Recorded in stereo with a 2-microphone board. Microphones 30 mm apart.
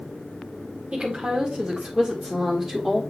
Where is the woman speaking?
45° right (ahead or behind), 1.7 m; by 3.0 s 10° right (ahead or behind), 1.7 m.